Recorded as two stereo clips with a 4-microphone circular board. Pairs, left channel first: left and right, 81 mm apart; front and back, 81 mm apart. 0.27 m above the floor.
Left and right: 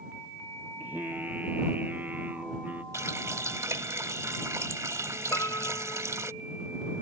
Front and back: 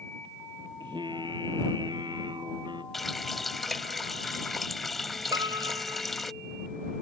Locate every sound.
0.8 s singing: 160° right
2.9 s a running tap: 85° right
5.3 s a piano: 145° left